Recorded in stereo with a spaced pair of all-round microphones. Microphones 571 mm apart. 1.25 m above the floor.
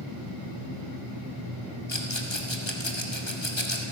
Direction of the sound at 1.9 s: 50° left (ahead or behind).